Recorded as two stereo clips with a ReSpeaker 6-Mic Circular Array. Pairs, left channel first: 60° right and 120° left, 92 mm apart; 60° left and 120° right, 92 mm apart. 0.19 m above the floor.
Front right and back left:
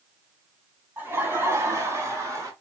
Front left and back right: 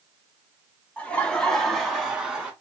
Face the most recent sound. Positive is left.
turn(degrees=160)